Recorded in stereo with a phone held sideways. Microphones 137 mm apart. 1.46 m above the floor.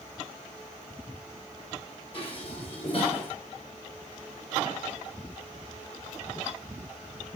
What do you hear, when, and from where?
2.1 s dishes clattering: 45° left (ahead or behind), 3 m